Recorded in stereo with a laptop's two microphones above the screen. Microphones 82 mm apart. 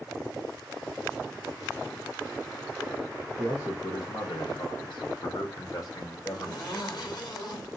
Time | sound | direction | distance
3.4 | a man speaking | 50° left (ahead or behind) | 1.0 m
6.3 | a zipper | 60° left (ahead or behind) | 2 m